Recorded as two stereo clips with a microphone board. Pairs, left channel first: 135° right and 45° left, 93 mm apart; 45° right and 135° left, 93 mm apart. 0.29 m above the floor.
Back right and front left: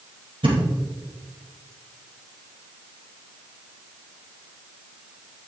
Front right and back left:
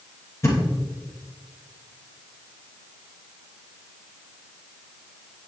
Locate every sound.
0.4 s a thud: 15° left, 2.5 m